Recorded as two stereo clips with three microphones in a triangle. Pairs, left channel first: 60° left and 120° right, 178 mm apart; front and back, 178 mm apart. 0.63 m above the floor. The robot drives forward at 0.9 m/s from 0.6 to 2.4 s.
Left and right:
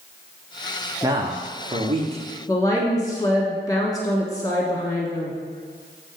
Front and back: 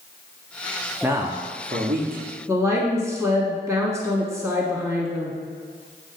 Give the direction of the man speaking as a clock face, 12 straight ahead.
4 o'clock.